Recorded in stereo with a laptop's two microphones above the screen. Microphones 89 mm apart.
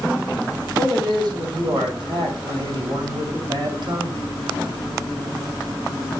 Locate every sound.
0.8 s a man speaking: 60° right (ahead or behind), 6 m